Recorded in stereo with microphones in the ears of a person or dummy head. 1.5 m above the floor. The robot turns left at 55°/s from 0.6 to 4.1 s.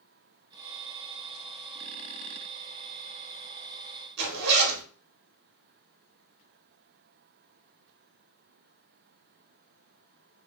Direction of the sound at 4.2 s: 55° right (ahead or behind).